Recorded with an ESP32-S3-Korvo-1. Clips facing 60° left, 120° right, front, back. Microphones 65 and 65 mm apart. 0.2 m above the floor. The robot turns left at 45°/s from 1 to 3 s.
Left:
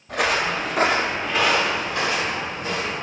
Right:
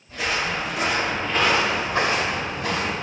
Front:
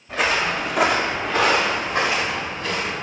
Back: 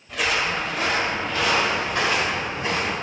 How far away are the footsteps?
About 0.6 m.